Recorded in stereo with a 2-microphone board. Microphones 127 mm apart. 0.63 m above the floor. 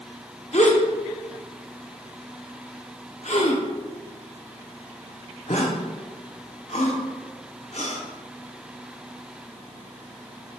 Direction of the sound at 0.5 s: 65° left (ahead or behind).